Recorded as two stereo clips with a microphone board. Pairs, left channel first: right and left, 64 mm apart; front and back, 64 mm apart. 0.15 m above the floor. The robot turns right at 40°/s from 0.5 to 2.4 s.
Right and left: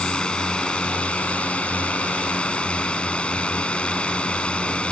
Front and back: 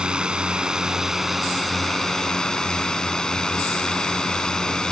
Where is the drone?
135° right; by 4.9 s 60° right.